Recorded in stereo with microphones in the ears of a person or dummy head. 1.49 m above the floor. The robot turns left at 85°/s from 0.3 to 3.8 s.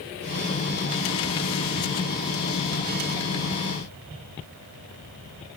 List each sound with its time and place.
Only background noise.